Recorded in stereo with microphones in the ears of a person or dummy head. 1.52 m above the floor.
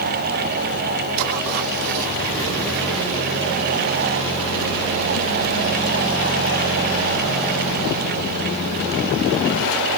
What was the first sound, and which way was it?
Only background noise.